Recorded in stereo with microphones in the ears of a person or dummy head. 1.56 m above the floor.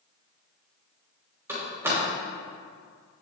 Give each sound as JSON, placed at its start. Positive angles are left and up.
{"t": 1.5, "sound": "a door slam", "side_deg": -20, "distance_m": 3.0}